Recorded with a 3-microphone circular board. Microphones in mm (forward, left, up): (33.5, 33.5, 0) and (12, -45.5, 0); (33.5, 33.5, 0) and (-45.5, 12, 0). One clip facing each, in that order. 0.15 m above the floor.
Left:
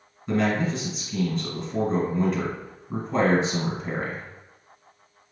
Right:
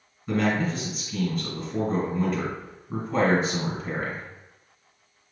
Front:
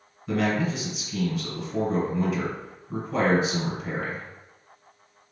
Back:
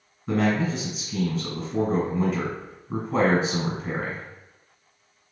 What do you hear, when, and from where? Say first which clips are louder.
0.3 s a man speaking: left 1 dB, back 2 dB; 165° left, 1.8 m